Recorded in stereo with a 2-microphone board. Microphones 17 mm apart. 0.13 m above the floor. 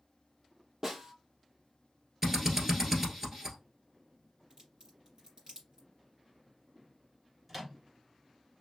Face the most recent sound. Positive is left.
turn(degrees=-5)  # may be behind; listen again after turning